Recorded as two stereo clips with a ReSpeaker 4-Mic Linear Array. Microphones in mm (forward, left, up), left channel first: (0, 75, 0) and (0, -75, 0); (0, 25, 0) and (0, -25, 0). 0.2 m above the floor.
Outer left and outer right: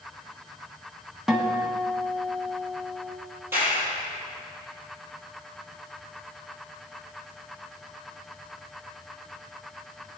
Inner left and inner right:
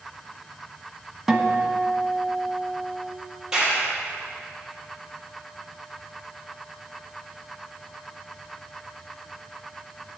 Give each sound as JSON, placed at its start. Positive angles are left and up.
{"t": 1.3, "sound": "a guitar", "side_deg": -5, "distance_m": 1.6}
{"t": 3.5, "sound": "a clap", "side_deg": -15, "distance_m": 5.5}